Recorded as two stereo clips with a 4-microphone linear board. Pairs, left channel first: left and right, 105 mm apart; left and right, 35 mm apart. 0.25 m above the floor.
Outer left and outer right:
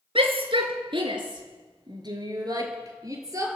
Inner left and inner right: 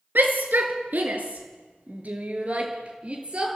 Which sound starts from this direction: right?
A shout, at 0.1 s.